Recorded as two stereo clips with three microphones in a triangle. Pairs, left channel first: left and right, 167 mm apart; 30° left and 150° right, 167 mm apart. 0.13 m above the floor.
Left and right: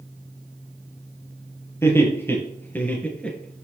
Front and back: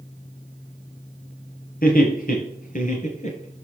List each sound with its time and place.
1.8 s laughter: 15° left, 3.5 m; by 3.6 s 5° left, 2.5 m